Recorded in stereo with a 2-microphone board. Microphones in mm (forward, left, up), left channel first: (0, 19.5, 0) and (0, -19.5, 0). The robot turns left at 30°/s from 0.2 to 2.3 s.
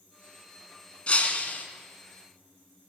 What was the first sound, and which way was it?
Breaking glass, 35° left (ahead or behind).